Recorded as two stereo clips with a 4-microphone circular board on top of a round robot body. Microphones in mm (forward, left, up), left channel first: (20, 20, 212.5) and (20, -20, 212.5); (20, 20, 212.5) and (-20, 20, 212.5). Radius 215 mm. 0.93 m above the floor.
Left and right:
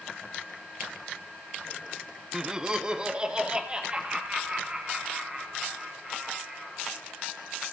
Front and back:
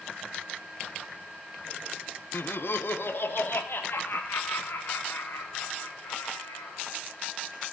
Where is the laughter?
15° right, 0.7 m; by 6.9 s 30° right, 5 m.